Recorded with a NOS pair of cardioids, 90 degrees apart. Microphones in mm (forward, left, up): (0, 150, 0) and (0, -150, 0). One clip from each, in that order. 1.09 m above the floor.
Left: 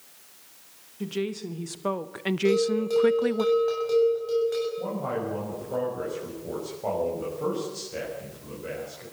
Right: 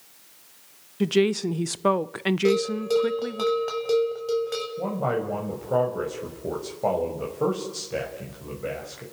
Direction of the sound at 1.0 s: 55° right.